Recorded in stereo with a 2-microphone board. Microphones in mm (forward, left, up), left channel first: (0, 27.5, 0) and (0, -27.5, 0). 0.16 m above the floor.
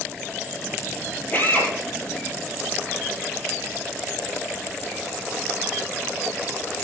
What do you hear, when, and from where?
1.3 s a drill: 30° left (ahead or behind), 4 m